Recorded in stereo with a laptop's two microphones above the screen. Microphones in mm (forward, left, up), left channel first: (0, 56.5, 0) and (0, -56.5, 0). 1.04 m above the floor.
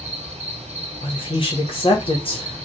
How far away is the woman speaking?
About 1.1 m.